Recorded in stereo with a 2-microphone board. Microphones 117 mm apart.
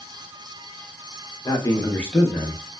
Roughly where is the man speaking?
Left.